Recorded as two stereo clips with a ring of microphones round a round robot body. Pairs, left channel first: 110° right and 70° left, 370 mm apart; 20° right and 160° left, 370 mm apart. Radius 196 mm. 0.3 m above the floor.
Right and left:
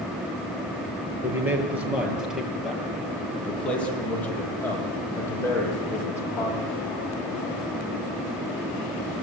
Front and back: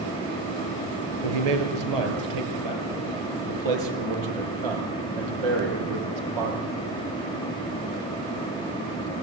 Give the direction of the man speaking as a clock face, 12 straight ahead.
7 o'clock.